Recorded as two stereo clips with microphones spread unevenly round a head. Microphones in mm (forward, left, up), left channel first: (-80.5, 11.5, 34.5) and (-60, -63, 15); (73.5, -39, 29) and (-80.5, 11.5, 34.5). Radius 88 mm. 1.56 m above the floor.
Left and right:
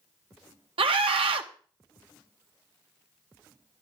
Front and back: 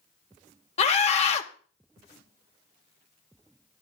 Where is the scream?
70° right, 1.3 m.